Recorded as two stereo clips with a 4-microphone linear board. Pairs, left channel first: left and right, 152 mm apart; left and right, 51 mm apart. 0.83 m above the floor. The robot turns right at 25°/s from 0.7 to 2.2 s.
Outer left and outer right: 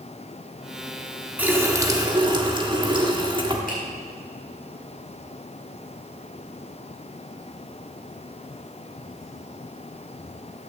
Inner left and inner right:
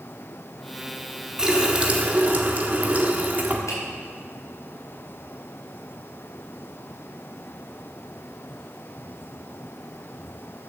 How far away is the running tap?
About 1.2 m.